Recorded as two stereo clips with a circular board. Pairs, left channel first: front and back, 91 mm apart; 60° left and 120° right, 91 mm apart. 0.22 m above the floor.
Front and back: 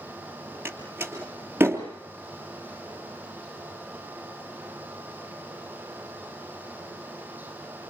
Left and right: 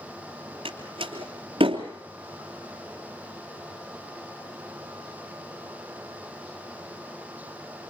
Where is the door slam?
115° right, 3 m.